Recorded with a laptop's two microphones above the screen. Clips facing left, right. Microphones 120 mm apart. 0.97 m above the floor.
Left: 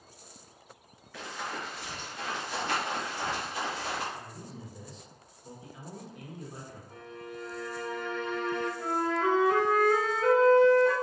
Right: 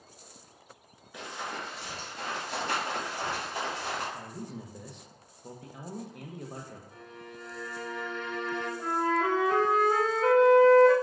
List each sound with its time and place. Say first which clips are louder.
1.1 s running footsteps: even; 20° right (ahead or behind), 0.9 m; by 4.0 s 50° right (ahead or behind), 1.9 m
4.1 s a man speaking: right 3 dB; 65° right (ahead or behind), 0.5 m
6.9 s a violin: left 3 dB; 55° left (ahead or behind), 1.4 m
8.8 s a flute: right 3 dB; 35° right (ahead or behind), 1.9 m